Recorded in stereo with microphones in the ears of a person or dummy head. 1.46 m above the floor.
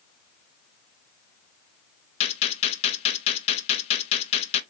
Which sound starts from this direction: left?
A gunshot, at 2.2 s.